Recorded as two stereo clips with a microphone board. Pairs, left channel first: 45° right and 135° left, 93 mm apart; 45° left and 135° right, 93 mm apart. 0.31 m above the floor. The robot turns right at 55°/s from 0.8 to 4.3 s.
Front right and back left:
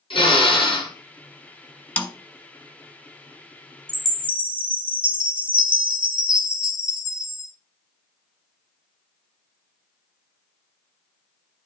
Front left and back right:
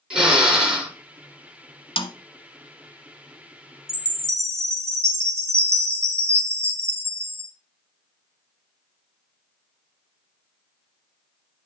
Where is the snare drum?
30° left, 1.0 m; by 2.1 s 35° left, 1.0 m.